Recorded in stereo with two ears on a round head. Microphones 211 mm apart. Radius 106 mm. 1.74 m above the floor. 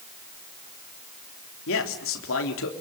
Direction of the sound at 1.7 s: 60° left (ahead or behind).